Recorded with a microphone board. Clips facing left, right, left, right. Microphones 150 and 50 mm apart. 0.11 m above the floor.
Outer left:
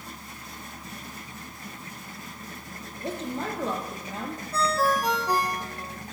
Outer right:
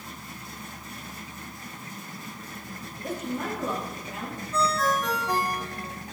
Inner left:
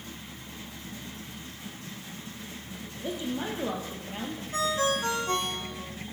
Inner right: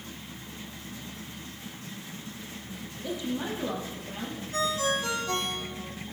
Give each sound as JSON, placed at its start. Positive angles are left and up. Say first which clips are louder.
{"t": 3.0, "sound": "a woman speaking", "louder": "even, even", "side_deg": 30, "distance_m": 3.5}
{"t": 4.5, "sound": "a ringtone", "louder": "outer left 1 dB, inner left 1 dB", "side_deg": 35, "distance_m": 3.5}